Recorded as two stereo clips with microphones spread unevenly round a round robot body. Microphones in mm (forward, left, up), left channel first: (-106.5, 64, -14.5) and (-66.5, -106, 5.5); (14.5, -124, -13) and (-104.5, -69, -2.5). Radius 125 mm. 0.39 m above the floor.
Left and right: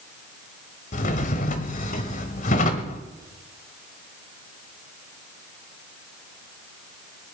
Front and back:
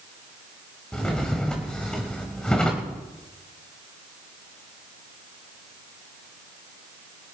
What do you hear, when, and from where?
0.9 s a drawer: 60° left, 0.9 m